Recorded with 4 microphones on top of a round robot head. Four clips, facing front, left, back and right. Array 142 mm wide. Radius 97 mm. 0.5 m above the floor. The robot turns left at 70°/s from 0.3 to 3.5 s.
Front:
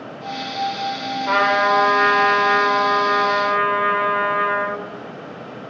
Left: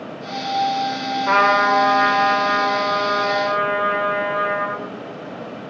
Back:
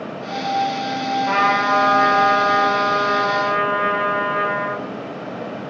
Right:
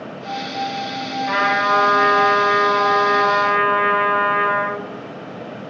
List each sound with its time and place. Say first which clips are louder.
1.3 s a trumpet: left 3 dB, front 2 dB; 80° left, 2 m; by 4.8 s 80° right, 2 m